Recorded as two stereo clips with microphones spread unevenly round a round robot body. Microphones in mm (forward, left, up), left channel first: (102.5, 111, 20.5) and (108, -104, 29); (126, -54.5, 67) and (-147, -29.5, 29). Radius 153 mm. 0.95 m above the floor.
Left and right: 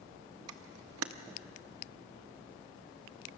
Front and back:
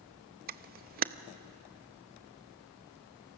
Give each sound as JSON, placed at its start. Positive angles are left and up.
{"t": 0.5, "sound": "a camera shutter", "azimuth_deg": -125, "distance_m": 0.7}